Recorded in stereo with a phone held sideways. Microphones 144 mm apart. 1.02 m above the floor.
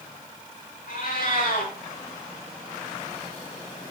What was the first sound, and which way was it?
A cat meowing, 70° left (ahead or behind).